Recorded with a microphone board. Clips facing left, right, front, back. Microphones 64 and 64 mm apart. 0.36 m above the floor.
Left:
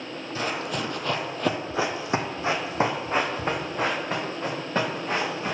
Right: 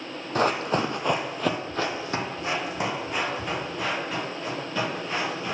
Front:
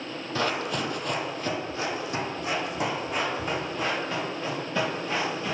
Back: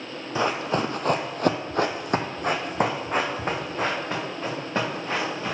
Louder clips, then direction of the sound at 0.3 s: Right 6 dB, back 4 dB; 110° right.